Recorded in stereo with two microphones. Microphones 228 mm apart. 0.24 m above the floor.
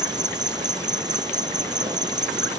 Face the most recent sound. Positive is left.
turn(degrees=-15)  # may be behind; listen again after turning